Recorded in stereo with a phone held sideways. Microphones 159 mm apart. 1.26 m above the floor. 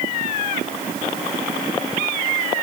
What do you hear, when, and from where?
Only background noise.